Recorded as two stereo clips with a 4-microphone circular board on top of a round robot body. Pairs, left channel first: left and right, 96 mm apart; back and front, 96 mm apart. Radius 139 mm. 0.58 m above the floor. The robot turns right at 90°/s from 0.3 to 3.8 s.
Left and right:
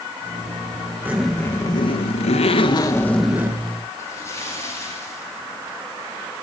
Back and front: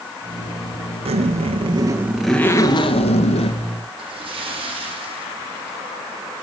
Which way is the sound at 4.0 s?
25° left.